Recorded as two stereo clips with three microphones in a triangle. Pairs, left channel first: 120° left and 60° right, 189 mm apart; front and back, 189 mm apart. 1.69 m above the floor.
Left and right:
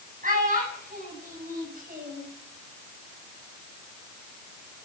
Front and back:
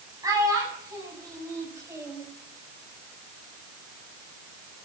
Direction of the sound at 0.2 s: 105° right.